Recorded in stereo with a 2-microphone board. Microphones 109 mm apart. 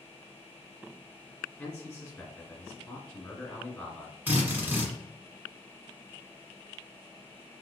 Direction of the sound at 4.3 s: 15° right (ahead or behind).